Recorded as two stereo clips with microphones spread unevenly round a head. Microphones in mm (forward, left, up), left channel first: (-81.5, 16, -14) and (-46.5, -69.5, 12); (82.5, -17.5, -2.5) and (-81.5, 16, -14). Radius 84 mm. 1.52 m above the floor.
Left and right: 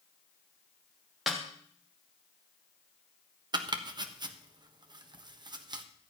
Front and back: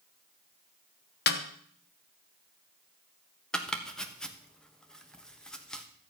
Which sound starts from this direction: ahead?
A snare drum, at 1.3 s.